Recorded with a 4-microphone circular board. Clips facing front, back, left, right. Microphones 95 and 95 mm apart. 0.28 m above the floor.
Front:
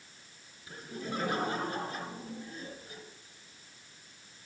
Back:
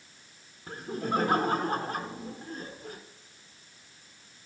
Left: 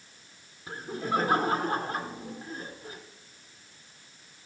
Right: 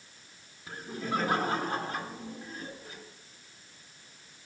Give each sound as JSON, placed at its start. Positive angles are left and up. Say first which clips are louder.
{"t": 0.7, "sound": "laughter", "louder": "back 8 dB, left 3 dB", "azimuth_deg": 165, "distance_m": 2.5}